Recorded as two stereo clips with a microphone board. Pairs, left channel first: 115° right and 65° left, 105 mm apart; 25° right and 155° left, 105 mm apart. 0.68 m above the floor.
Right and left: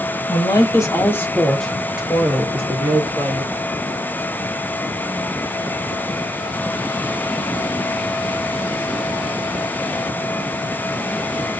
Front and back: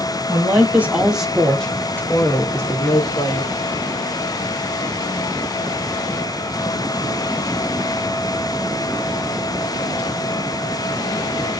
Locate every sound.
0.3 s a woman speaking: 145° right, 1.1 m; by 3.5 s 20° left, 1.4 m